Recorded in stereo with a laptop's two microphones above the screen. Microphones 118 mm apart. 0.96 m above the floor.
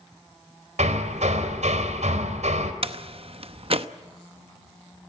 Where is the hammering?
85° right, 2.5 m.